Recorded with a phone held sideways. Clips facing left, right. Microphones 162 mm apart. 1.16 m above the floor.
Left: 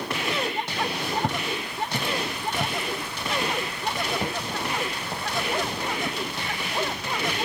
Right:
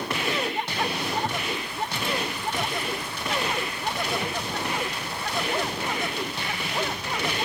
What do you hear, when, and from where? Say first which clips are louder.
1.2 s footsteps: left 1 dB; 60° left (ahead or behind), 2 m; by 7.0 s 55° left (ahead or behind), 6.5 m